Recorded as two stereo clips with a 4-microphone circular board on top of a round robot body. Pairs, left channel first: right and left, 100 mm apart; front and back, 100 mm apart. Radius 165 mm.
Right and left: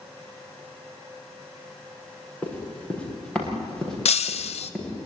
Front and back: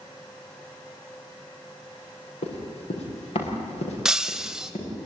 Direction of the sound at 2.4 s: 10° right.